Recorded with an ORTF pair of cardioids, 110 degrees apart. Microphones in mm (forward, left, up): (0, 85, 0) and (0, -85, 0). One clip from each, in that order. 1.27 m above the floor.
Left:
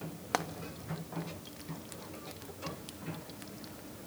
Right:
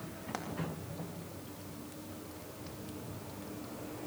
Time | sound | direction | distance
0.3 | frying | 55° left | 2.5 m